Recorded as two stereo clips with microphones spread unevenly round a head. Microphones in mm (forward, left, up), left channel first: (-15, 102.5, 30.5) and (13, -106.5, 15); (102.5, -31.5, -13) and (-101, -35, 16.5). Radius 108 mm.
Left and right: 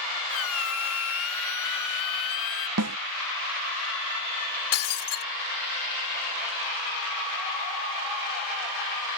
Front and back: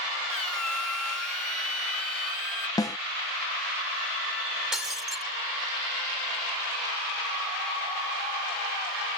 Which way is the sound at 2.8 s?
75° right.